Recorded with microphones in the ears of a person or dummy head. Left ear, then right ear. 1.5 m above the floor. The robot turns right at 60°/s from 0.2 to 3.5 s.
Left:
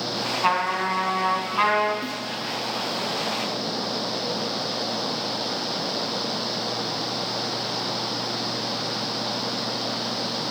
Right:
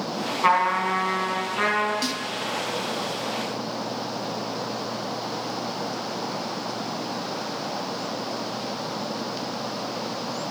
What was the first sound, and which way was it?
A trumpet, straight ahead.